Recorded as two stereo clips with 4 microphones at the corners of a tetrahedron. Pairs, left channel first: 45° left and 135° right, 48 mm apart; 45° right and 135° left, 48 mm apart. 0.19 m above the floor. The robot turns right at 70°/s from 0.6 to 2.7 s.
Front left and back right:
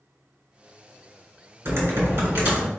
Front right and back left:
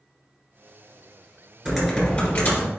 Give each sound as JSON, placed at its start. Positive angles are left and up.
{"t": 1.6, "sound": "typing on a keyboard", "azimuth_deg": -150, "distance_m": 1.9}